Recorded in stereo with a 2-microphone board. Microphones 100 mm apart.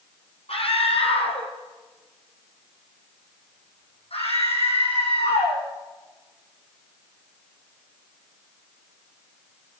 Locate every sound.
0.5 s a scream: 70° left (ahead or behind), 5 m; by 5.6 s 75° left (ahead or behind), 8.5 m